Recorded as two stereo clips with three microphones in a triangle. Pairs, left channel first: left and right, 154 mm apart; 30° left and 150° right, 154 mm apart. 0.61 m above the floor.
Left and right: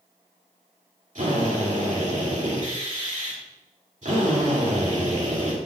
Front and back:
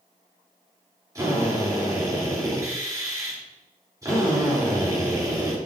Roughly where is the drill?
Right.